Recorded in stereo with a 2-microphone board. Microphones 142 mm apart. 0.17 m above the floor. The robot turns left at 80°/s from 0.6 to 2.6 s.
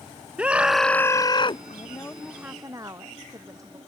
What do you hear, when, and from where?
0.4 s a scream: 170° right; by 1.6 s 110° left
1.7 s a woman speaking: 50° left; by 3.8 s 25° right